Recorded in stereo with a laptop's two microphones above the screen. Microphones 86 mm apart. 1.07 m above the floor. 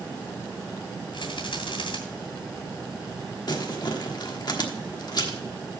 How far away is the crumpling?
About 1.2 m.